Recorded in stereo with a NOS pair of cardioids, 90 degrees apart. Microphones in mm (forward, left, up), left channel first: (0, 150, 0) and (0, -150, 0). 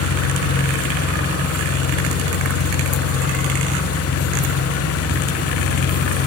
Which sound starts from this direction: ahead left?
An engine running, at 0.0 s.